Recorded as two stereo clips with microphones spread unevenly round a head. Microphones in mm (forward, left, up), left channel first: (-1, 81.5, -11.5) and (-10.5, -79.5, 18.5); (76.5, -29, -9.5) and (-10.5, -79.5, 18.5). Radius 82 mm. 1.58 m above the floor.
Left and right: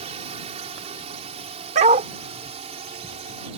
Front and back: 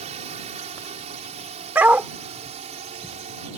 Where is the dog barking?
100° right.